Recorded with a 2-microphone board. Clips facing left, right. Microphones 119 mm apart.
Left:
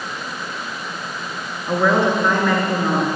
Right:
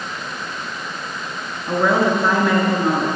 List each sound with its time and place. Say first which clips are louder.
1.7 s a woman speaking: even; 10° right (ahead or behind), 1.1 m